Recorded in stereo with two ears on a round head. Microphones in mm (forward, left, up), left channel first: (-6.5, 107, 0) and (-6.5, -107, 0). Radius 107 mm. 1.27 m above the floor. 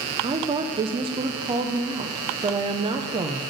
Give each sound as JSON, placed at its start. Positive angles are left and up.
{"t": 0.2, "sound": "a woman speaking", "side_deg": -20, "distance_m": 0.5}